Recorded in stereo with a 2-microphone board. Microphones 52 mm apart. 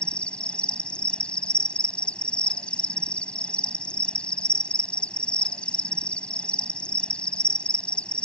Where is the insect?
20° left (ahead or behind).